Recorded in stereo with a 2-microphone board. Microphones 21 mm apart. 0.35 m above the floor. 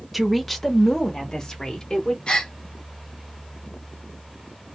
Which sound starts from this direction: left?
A gasp, at 2.3 s.